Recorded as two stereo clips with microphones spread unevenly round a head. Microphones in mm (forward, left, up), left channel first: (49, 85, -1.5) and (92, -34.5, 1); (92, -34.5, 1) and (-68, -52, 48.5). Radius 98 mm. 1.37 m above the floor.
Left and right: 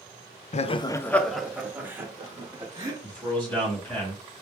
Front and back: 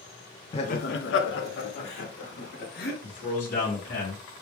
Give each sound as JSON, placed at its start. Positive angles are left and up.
{"t": 0.5, "sound": "laughter", "azimuth_deg": 75, "distance_m": 0.6}
{"t": 3.0, "sound": "a man speaking", "azimuth_deg": 30, "distance_m": 2.5}